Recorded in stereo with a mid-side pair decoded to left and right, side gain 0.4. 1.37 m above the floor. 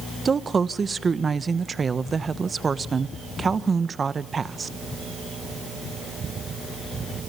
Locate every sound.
0.2 s a woman speaking: 40° right, 1.2 m